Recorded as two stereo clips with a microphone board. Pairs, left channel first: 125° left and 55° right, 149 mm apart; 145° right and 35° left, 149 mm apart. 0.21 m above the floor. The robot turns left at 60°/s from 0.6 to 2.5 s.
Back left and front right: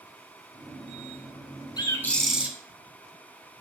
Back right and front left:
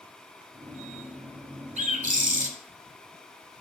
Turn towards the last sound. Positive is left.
turn(degrees=20)